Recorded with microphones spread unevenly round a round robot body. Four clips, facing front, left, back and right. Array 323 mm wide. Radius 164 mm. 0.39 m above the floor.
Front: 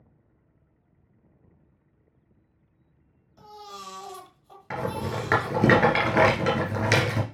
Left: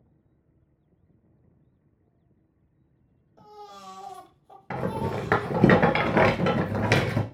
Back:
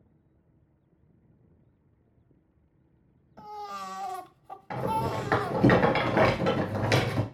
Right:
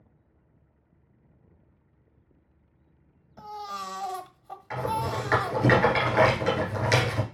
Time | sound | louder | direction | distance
3.4 | a baby crying | right 8 dB, back 5 dB | 110° right | 1.4 m
4.7 | a rattle | even, back 1 dB | 65° left | 2.0 m